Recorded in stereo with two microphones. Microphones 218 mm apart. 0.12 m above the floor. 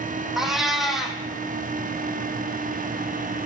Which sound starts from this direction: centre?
A cat meowing, at 0.4 s.